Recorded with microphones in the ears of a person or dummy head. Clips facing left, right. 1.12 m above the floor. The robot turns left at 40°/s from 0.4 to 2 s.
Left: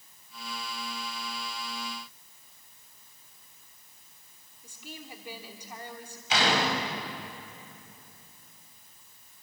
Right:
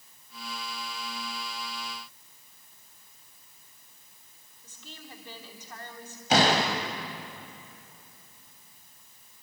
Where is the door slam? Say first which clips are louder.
Right 4 dB; 45° right (ahead or behind), 4 m.